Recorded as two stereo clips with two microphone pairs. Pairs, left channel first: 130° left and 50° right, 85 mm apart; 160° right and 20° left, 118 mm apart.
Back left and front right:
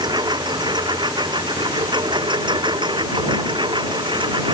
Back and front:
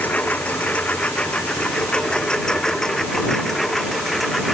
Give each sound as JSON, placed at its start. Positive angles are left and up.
{"t": 0.0, "sound": "a lawn mower", "azimuth_deg": -85}